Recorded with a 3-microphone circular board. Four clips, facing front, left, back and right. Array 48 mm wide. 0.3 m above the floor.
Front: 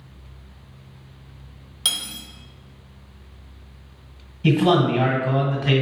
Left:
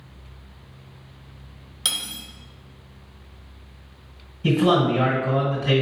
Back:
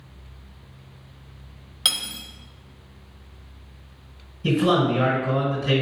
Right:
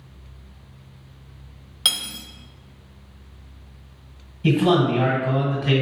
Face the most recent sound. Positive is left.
turn(degrees=-25)